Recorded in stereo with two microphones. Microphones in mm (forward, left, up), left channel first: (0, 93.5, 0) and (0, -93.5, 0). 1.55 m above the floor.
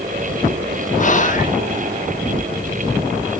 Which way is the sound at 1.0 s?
45° left (ahead or behind).